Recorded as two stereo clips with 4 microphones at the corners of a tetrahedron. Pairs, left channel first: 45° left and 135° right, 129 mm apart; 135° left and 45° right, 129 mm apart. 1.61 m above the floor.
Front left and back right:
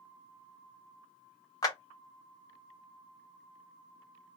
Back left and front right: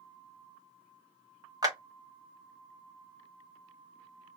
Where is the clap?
Straight ahead, 1.0 m.